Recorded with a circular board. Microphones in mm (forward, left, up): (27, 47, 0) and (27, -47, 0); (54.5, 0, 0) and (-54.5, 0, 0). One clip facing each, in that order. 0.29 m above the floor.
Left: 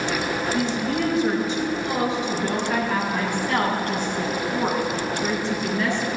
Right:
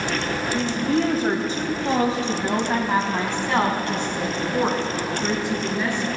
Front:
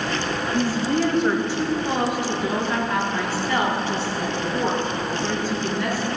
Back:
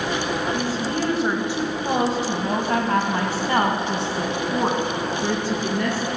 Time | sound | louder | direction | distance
0.5 | a woman speaking | right 5 dB, front 3 dB | 75° right | 1.4 m